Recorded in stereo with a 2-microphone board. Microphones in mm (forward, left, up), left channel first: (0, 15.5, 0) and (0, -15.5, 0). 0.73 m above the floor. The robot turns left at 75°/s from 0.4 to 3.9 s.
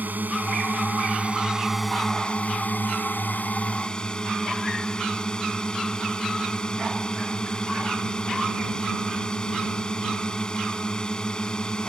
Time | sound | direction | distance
0.0 | a drone | 75° right | ?